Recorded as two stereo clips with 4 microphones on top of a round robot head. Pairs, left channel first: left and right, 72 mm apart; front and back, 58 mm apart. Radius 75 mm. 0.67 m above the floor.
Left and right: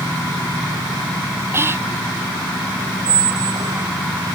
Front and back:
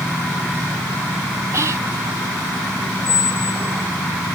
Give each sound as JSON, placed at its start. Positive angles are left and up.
{"t": 1.5, "sound": "whispering", "azimuth_deg": -145}
{"t": 3.0, "sound": "a squeak", "azimuth_deg": -60}